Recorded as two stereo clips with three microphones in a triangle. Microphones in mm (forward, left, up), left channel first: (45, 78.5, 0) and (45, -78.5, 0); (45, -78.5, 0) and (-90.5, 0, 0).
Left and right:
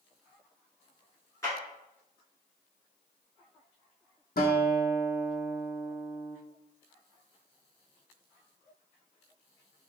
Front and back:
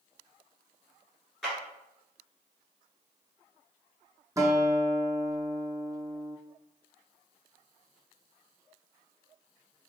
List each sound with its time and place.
1.4 s a clap: 55° left, 1.5 m
4.4 s a guitar: 80° left, 0.7 m